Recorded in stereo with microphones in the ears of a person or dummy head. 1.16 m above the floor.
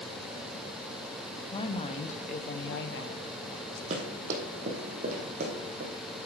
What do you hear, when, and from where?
1.5 s a woman speaking: 20° left (ahead or behind), 1.1 m; by 3.8 s 70° left (ahead or behind), 1.3 m
3.9 s running footsteps: 40° right (ahead or behind), 3.5 m; by 5.9 s 50° right (ahead or behind), 4 m